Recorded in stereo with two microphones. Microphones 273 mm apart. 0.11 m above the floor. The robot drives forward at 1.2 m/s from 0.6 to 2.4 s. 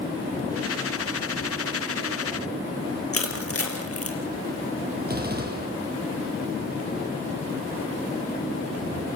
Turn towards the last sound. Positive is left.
turn(degrees=-35)  # may be behind; listen again after turning